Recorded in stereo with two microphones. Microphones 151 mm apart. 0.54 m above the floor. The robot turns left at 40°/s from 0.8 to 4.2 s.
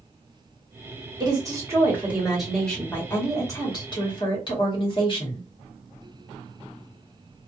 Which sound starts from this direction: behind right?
A woman speaking, at 1.2 s.